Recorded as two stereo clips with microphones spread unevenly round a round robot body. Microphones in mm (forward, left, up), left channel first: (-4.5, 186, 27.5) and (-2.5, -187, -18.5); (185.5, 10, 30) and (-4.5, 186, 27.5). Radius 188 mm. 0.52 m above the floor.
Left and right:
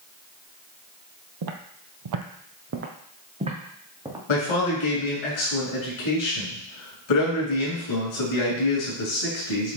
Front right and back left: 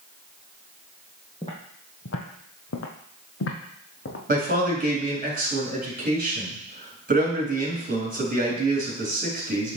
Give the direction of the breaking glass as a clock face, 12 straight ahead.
No breaking glass in this recording.